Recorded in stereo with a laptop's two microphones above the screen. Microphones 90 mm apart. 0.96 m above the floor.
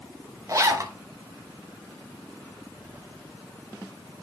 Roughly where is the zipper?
Right.